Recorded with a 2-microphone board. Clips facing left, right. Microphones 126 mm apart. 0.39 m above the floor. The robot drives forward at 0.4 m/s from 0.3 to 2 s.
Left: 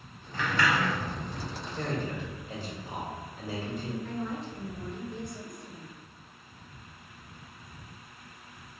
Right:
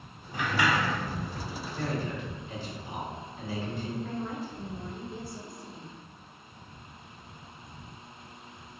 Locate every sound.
0.3 s a sliding door: 15° right (ahead or behind), 0.7 m; by 1.0 s 25° right (ahead or behind), 0.5 m
1.7 s a man speaking: 45° left (ahead or behind), 1.2 m
4.0 s a woman speaking: 5° right (ahead or behind), 1.0 m